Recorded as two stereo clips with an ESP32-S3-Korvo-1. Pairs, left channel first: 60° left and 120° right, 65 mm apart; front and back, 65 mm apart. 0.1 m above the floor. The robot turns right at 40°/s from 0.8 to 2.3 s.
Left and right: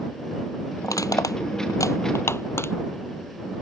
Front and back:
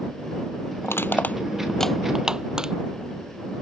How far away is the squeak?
I don't hear a squeak.